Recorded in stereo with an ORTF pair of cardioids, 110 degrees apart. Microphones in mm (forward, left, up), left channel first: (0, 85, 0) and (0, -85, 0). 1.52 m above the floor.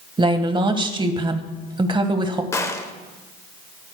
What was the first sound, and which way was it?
A woman speaking, 30° right.